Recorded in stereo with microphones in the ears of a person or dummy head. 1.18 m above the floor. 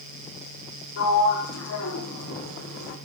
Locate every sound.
1.0 s a sliding door: 75° left (ahead or behind), 2 m